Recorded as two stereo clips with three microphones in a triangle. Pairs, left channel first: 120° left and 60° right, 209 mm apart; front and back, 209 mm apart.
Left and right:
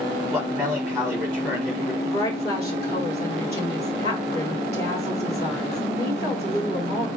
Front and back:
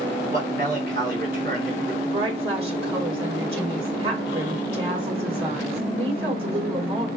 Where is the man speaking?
135° right, 3 m.